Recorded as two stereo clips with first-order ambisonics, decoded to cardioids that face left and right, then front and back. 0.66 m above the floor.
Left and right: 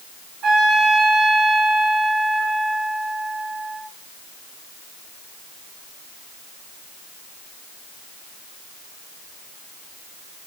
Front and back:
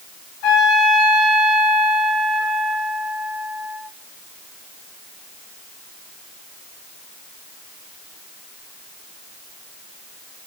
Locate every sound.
0.4 s a trumpet: 25° right, 1.8 m